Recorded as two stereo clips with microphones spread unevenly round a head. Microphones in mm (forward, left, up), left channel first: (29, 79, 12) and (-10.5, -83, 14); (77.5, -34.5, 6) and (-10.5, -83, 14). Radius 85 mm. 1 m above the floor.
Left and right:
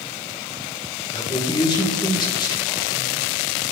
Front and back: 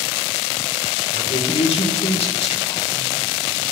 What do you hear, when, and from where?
1.1 s a man speaking: 10° left, 3.5 m